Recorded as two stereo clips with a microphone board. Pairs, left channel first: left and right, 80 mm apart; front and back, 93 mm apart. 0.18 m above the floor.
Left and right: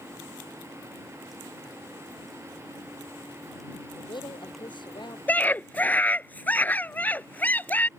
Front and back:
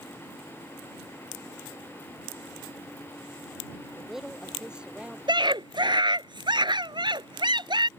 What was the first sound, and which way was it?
A woman speaking, 95° left.